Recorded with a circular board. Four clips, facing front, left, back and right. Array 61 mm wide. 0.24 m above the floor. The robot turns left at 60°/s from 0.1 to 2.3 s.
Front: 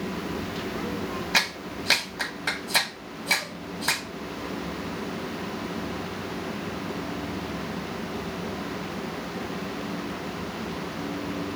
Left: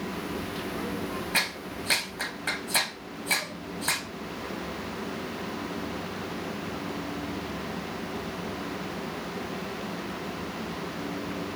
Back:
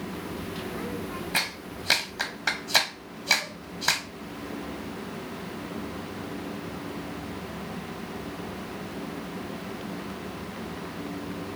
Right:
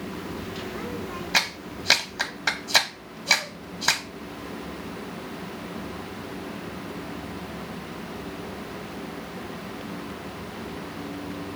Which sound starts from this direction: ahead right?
A clap, at 1.3 s.